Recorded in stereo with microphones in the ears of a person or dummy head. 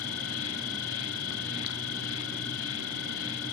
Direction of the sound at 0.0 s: 80° left.